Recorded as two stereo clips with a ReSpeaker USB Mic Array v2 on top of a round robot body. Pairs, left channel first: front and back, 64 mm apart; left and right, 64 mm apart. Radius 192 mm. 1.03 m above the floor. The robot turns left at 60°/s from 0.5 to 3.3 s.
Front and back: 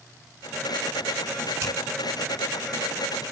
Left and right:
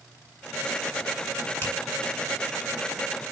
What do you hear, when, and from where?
1.6 s a finger snap: 150° left, 6.5 m; by 1.7 s 145° left, 6.5 m